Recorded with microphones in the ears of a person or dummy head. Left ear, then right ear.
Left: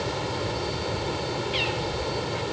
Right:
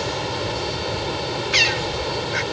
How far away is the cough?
No cough in this recording.